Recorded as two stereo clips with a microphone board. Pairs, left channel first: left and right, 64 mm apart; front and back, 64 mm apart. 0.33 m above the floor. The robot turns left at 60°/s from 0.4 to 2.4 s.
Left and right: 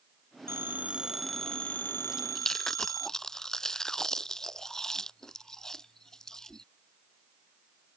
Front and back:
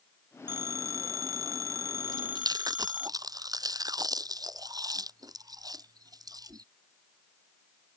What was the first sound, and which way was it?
A phone ringing, 130° right.